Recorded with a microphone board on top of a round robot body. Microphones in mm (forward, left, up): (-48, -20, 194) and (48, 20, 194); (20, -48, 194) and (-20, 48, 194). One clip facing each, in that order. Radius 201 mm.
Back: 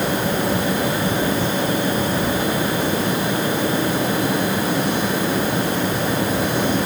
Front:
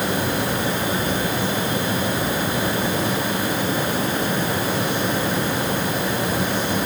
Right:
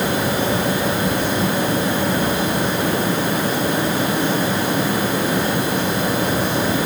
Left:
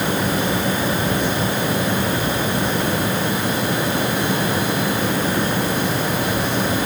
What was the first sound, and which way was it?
Only background noise.